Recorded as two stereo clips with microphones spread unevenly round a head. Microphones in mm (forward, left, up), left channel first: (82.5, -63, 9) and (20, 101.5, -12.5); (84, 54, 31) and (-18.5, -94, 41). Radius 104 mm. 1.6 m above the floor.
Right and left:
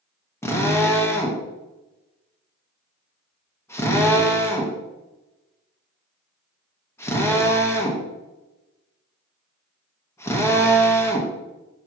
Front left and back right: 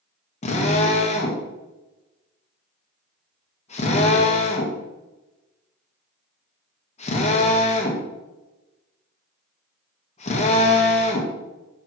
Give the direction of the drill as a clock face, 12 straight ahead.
12 o'clock.